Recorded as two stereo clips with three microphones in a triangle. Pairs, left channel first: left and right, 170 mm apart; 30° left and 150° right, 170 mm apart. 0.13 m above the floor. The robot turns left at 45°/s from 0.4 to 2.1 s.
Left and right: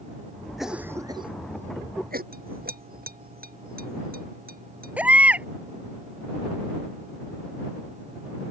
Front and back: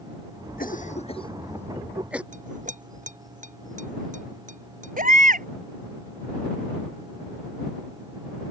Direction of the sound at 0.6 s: Straight ahead.